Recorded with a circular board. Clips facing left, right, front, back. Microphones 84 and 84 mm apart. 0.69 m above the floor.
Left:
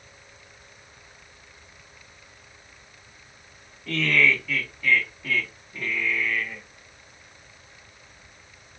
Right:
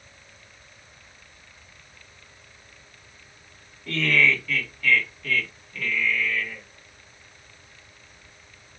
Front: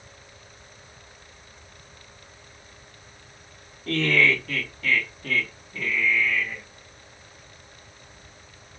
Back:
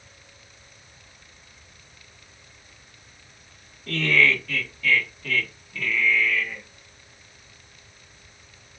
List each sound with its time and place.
3.9 s laughter: straight ahead, 1.8 m; by 6.6 s 65° left, 1.3 m